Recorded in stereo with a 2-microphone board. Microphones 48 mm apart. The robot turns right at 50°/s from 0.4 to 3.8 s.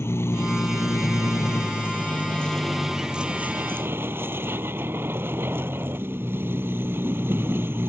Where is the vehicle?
60° left; by 7.9 s 130° right.